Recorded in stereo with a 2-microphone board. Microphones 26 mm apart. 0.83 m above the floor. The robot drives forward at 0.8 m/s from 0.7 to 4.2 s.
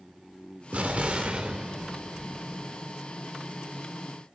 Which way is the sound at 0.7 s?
65° right (ahead or behind).